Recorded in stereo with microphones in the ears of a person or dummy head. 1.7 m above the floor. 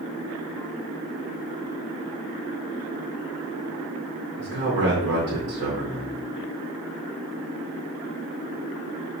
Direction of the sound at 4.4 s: 60° right (ahead or behind).